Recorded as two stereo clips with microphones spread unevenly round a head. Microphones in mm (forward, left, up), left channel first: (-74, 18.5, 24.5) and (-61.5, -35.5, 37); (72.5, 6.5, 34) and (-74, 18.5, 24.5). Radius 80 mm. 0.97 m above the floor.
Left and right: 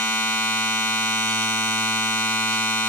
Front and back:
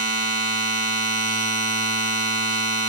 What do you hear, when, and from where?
0.0 s a machine running: 145° left, 6.5 m